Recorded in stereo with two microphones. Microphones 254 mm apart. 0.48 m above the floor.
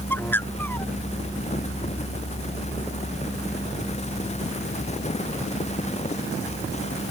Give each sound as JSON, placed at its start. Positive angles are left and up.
{"t": 0.1, "sound": "a bird", "side_deg": 10}